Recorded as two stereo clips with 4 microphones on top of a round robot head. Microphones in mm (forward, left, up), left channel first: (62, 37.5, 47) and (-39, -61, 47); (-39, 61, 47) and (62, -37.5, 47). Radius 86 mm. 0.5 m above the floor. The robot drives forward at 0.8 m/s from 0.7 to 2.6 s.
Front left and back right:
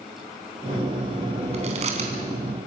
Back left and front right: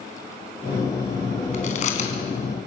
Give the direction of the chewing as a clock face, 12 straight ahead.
6 o'clock.